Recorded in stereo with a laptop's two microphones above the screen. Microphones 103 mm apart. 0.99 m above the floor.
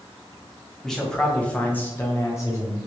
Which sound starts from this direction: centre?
A man speaking, at 0.8 s.